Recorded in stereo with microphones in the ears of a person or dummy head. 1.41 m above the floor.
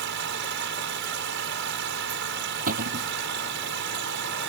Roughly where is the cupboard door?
Right.